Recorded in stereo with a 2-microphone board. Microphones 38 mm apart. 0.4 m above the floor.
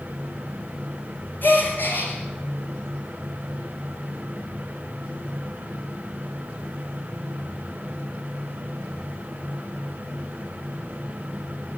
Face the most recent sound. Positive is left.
turn(degrees=60)  # may be behind; listen again after turning